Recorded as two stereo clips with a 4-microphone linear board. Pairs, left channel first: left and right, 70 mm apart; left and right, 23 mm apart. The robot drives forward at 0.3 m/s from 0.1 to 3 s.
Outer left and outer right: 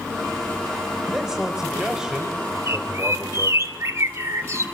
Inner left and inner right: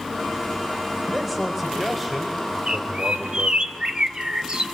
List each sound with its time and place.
1.1 s a man speaking: 10° right (ahead or behind), 3.5 m
2.7 s a bird: 45° right (ahead or behind), 1.3 m; by 4.7 s 40° right (ahead or behind), 1.3 m